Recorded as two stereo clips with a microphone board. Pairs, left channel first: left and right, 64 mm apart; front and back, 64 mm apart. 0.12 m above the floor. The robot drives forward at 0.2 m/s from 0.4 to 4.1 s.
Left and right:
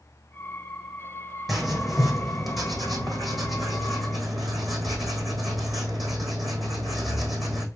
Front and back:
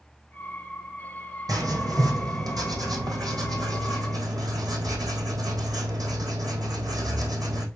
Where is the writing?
Straight behind, 3.5 m.